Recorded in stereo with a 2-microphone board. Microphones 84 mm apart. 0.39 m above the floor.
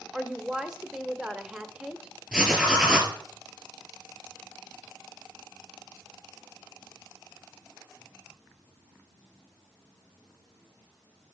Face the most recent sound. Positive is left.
turn(degrees=-15)  # may be behind; listen again after turning